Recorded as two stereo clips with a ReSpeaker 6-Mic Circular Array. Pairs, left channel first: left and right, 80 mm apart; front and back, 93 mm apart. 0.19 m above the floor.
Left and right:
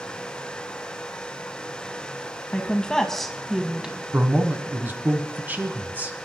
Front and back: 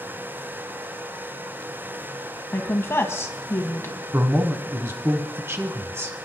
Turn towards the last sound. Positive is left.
turn(degrees=-140)